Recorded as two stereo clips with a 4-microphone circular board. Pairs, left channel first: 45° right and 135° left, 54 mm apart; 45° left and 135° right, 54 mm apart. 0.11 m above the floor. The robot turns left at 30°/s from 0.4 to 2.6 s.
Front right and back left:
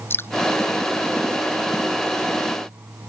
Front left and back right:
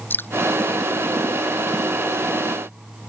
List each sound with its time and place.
0.1 s dripping: straight ahead